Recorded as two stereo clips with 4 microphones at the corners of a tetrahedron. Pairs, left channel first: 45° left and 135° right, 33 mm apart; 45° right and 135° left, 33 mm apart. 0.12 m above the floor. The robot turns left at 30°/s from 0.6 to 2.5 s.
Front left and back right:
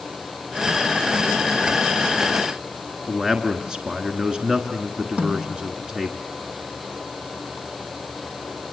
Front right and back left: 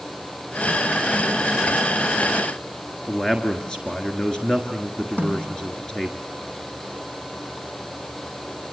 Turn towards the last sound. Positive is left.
turn(degrees=-85)